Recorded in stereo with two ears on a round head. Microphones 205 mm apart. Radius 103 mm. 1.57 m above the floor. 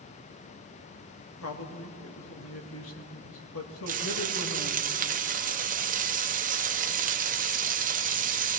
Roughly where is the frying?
Right.